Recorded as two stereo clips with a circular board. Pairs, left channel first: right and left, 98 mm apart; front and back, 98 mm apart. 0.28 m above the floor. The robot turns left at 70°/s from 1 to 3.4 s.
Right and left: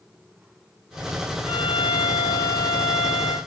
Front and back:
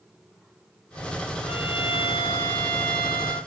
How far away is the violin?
About 2.5 m.